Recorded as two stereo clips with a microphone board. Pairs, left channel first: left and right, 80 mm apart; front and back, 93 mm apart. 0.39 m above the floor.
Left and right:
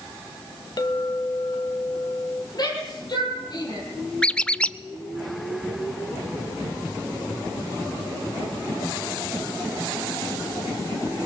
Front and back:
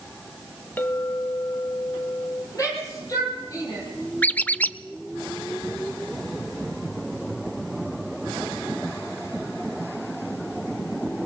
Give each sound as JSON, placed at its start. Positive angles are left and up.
{"t": 0.8, "sound": "a clink", "azimuth_deg": 70, "distance_m": 1.2}
{"t": 2.5, "sound": "a shout", "azimuth_deg": 55, "distance_m": 10.0}
{"t": 4.2, "sound": "a squeak", "azimuth_deg": 40, "distance_m": 0.6}